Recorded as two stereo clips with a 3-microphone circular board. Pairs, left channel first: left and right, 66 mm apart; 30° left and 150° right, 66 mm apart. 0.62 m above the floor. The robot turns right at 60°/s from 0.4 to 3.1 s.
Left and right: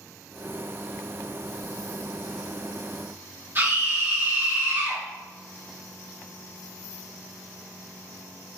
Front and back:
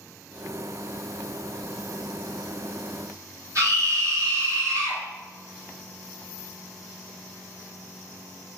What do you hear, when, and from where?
3.5 s a scream: 130° right, 1.7 m